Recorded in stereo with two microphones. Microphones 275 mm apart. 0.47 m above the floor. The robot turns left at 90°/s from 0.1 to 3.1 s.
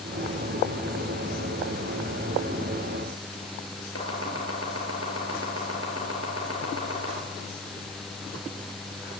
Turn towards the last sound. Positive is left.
turn(degrees=55)  # may be behind; listen again after turning